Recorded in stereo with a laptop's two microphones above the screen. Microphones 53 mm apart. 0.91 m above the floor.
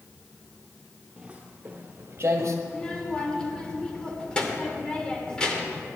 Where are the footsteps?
15° right (ahead or behind), 1.3 m; by 2.6 s 55° right (ahead or behind), 1.4 m.